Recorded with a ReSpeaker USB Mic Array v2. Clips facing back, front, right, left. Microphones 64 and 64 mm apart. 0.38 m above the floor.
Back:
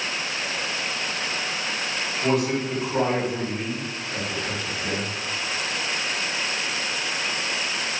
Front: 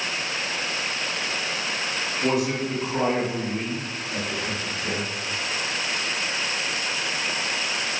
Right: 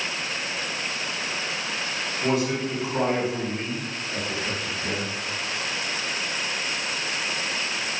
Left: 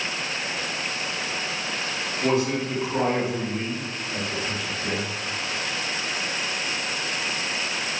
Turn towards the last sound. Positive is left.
turn(degrees=-110)